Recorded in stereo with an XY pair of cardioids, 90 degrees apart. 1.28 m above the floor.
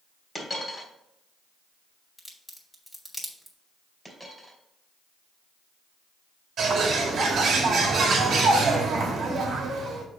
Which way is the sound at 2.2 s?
5° left.